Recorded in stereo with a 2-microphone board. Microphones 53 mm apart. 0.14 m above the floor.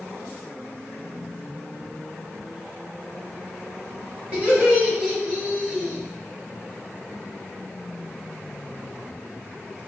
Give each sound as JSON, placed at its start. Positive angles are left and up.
{"t": 4.3, "sound": "laughter", "side_deg": -25, "distance_m": 1.7}